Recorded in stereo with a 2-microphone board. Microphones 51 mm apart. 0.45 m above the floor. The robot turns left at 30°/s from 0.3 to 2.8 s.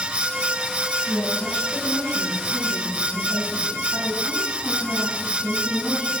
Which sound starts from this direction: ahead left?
A woman speaking, at 1.1 s.